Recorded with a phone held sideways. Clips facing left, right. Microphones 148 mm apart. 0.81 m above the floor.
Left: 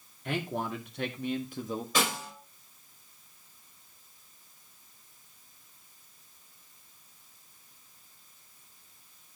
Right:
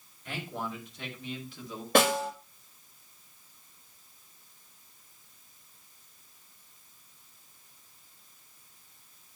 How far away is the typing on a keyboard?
I don't hear typing on a keyboard.